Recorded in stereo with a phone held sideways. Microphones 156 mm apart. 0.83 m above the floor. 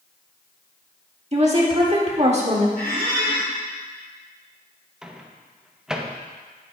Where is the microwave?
5° right (ahead or behind), 0.7 m.